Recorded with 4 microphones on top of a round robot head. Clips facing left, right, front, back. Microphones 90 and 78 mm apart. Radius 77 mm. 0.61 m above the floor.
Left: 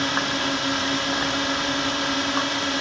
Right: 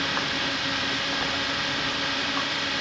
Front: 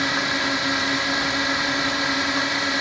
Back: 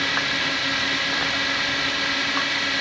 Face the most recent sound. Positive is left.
turn(degrees=55)